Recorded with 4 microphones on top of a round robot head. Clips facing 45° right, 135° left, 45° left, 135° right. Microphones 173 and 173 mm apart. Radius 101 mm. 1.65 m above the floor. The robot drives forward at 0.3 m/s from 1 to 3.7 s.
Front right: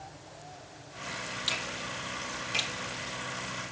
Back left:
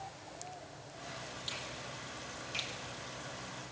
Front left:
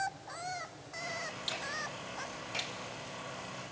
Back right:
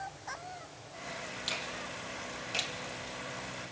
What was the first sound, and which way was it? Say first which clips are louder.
A finger snap: front right 6 dB, even; 65° right.